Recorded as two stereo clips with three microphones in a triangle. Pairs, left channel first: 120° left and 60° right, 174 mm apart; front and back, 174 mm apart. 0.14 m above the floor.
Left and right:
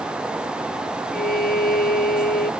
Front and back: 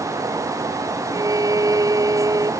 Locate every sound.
1.1 s a violin: 115° left